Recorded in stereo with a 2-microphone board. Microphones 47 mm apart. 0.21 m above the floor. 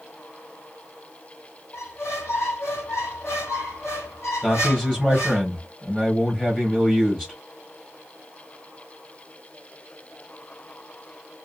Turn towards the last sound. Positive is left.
turn(degrees=15)  # may be behind; listen again after turning